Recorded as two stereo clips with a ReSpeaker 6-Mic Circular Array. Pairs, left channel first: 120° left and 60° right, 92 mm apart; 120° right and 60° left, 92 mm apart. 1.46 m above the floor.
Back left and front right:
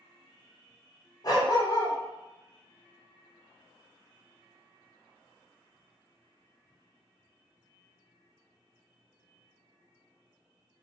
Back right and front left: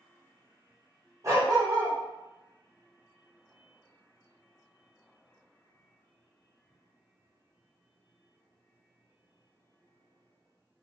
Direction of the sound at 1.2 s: 100° left.